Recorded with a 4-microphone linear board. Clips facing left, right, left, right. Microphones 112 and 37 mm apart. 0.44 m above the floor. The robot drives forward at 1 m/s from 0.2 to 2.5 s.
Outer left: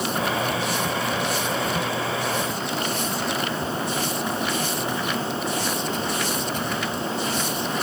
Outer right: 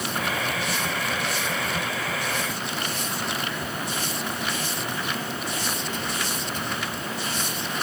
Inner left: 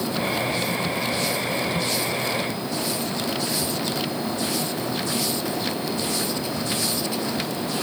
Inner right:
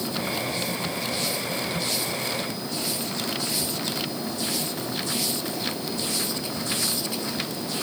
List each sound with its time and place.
Only background noise.